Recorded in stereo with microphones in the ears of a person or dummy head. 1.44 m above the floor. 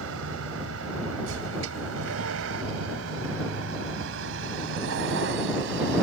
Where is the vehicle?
80° right; by 6.0 s 65° right (ahead or behind).